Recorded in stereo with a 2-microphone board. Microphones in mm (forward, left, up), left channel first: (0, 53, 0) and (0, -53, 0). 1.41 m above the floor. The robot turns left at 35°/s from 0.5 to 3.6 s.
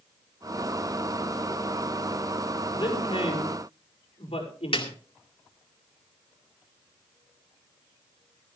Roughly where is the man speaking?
Left.